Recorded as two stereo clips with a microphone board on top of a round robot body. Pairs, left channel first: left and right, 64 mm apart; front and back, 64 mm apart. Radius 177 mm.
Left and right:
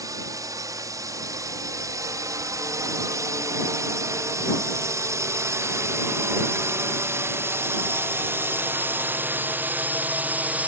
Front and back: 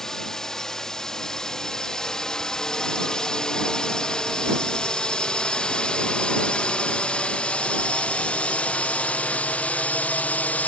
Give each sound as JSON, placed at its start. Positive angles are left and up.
{"t": 0.0, "sound": "a drone", "azimuth_deg": -85}